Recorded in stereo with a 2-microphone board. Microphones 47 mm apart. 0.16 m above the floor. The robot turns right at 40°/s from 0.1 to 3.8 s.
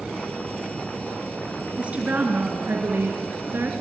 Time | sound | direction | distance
1.8 | a woman speaking | 150° right | 2.5 m